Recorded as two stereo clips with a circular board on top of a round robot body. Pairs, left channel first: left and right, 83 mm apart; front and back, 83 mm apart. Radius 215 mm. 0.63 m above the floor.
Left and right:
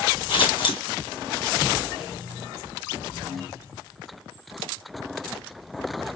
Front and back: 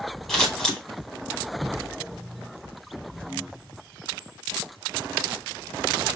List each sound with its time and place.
0.3 s scissors: 85° left, 2.5 m